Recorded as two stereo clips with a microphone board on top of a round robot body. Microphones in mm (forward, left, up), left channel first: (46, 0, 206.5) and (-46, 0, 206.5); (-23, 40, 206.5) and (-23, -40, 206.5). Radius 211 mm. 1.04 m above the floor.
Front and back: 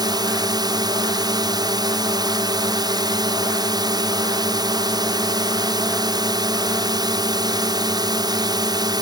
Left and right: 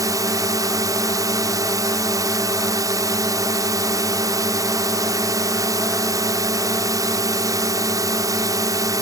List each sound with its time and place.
0.0 s a drone: 135° right